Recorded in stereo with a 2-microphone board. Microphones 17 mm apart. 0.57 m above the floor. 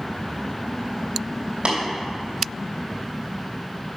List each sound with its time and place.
1.6 s tapping: 70° right (ahead or behind), 2.5 m